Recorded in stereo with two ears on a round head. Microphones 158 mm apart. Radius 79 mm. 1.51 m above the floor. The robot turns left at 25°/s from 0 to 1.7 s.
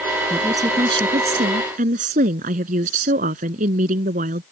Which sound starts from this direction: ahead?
A woman speaking, at 0.3 s.